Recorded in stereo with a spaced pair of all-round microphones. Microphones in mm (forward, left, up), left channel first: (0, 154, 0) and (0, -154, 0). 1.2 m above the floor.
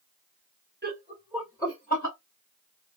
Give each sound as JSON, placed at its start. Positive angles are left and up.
{"t": 0.8, "sound": "laughter", "side_deg": -35, "distance_m": 1.0}